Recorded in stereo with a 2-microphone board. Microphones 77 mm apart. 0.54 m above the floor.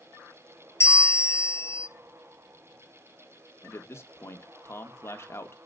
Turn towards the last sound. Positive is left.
turn(degrees=35)  # may be behind; listen again after turning